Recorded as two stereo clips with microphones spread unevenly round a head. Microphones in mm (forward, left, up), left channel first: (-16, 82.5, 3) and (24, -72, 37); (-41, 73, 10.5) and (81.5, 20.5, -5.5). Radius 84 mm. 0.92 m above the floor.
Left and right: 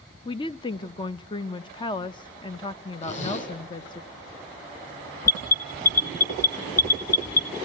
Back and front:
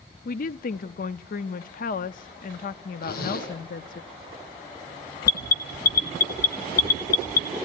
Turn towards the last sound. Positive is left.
turn(degrees=170)